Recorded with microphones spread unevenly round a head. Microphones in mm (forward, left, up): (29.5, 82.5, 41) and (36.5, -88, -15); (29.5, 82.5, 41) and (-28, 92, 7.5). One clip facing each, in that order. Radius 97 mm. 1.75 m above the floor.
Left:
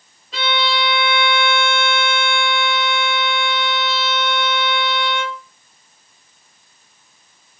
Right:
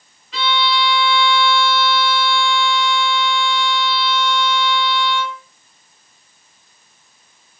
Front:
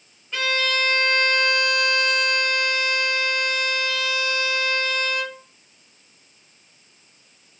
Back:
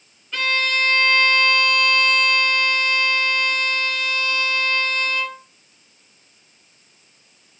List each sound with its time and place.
0.3 s a violin: 55° left, 3 m